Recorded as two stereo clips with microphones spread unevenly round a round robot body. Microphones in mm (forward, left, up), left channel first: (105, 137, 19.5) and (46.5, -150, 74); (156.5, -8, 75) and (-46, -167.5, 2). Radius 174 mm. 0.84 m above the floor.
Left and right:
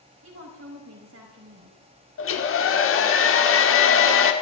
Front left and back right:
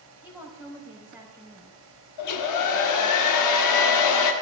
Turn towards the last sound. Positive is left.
turn(degrees=40)